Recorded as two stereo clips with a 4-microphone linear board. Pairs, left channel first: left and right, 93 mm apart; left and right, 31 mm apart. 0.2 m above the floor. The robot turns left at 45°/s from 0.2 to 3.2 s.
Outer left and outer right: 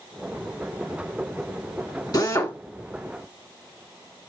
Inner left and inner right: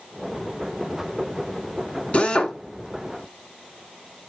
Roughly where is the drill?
Left.